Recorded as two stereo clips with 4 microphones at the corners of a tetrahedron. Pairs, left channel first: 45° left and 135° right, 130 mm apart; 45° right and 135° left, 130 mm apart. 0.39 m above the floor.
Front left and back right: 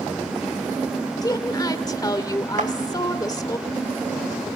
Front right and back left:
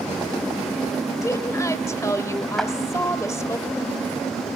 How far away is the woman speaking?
About 1.4 m.